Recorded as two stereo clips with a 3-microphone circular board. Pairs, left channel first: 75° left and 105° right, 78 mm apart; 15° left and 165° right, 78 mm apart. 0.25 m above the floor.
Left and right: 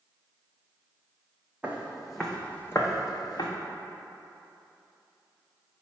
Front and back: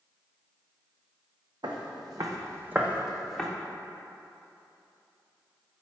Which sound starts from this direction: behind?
Footsteps, at 1.6 s.